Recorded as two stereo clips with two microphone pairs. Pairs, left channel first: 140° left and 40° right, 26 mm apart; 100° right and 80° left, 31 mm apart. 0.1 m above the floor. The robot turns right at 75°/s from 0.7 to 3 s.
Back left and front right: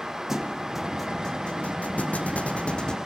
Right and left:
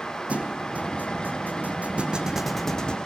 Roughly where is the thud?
Ahead left.